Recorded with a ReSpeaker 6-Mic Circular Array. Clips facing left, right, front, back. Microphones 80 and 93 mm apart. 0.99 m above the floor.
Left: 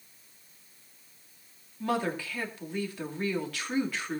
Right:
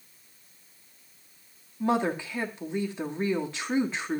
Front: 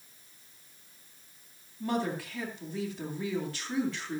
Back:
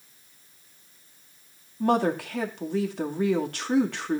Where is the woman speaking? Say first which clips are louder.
Right 4 dB, back 8 dB; 155° right, 2 m.